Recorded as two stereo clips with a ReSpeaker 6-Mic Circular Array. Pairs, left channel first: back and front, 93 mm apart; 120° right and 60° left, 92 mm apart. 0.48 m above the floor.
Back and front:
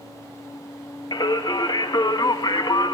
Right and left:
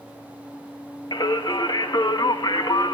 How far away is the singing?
About 0.5 m.